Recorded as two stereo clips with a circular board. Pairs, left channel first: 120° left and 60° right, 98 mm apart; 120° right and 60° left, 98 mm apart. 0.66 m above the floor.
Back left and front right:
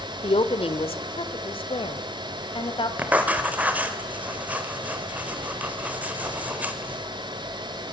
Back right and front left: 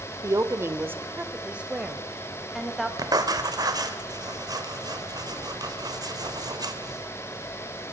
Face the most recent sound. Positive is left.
turn(degrees=15)